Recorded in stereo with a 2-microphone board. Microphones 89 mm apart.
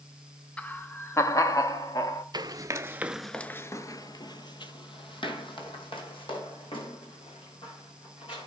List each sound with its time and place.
0.6 s laughter: 15° left (ahead or behind), 0.6 m; by 2.2 s 50° left (ahead or behind), 1.1 m
2.3 s running footsteps: 50° right (ahead or behind), 0.9 m; by 8.5 s 80° left, 4 m